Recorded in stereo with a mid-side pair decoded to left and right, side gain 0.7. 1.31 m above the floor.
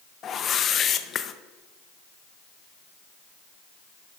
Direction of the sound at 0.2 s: 35° left.